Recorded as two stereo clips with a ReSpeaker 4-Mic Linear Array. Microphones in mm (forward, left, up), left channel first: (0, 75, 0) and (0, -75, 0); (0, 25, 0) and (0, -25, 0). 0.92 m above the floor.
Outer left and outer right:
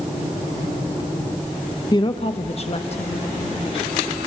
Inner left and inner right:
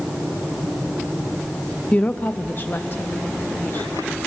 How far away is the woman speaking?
About 0.8 m.